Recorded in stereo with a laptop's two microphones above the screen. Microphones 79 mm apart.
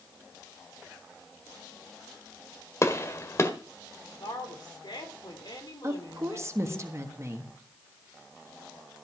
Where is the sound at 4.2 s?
65° left (ahead or behind), 2.5 m.